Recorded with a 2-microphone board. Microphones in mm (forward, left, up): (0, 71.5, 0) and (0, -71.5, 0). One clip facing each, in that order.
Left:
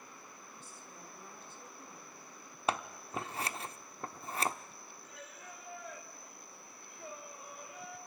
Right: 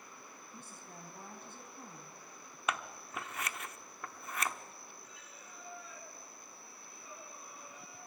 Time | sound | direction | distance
0.5 | a woman speaking | 55° right (ahead or behind) | 4 m
2.7 | scissors | 30° left (ahead or behind) | 0.8 m
5.0 | singing | 60° left (ahead or behind) | 2.5 m